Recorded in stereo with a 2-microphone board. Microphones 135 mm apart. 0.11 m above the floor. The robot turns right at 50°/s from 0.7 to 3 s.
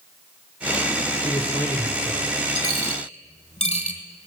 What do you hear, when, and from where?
1.2 s a man speaking: 125° left, 1.5 m; by 2.3 s straight behind, 1.5 m
2.5 s a dropped coin: 30° left (ahead or behind), 1.5 m; by 4.0 s 50° left (ahead or behind), 1.5 m